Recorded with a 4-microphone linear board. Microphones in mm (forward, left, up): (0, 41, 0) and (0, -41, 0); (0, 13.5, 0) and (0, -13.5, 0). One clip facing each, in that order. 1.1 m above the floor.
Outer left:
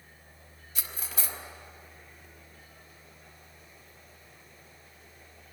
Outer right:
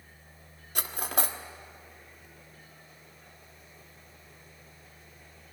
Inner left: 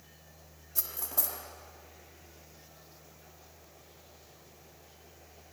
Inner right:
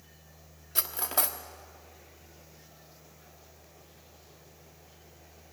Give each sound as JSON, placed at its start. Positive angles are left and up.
{"t": 0.8, "sound": "cutlery clinking", "side_deg": -60, "distance_m": 1.3}